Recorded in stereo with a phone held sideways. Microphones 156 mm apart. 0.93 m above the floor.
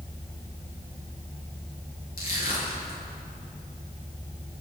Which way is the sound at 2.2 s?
70° left (ahead or behind).